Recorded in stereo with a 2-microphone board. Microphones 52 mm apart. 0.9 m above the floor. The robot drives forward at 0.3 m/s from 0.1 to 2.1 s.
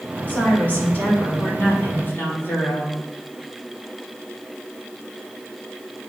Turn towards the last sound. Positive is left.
turn(degrees=40)  # may be behind; listen again after turning